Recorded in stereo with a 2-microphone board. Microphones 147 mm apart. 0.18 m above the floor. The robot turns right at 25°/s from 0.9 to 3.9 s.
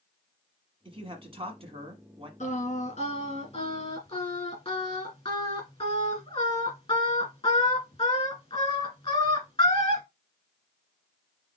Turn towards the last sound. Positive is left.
turn(degrees=130)